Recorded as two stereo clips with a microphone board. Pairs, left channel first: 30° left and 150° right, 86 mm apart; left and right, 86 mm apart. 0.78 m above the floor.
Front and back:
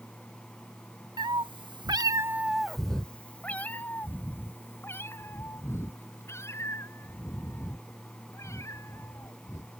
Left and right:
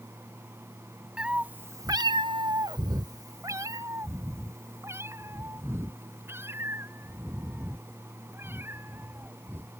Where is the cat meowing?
170° right; by 9.7 s 25° right.